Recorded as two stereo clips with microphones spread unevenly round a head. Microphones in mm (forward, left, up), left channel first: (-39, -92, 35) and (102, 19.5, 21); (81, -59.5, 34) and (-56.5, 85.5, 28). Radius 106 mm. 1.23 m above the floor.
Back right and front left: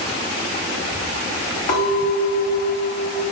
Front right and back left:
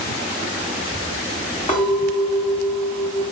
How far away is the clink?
About 1.1 m.